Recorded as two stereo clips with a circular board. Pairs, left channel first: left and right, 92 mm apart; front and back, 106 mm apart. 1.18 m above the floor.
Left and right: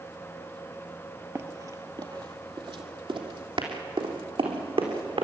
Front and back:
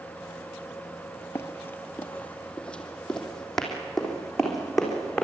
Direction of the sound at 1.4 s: 50° right.